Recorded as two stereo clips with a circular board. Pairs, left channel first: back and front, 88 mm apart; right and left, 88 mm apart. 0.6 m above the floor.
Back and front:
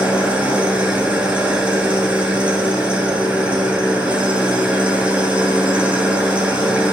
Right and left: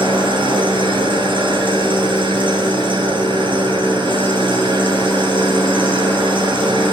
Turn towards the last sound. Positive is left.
turn(degrees=80)